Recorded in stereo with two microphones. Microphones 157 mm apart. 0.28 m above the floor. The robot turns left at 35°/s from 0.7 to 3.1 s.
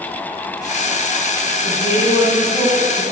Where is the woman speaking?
60° left, 3 m; by 3.0 s 10° left, 3 m.